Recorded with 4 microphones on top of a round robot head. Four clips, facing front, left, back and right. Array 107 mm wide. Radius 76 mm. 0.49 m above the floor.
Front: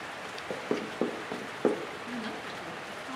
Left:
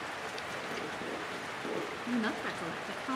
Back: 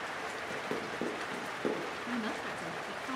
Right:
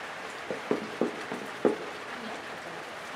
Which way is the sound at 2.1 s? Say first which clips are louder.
Left 5 dB, back 1 dB; 95° left.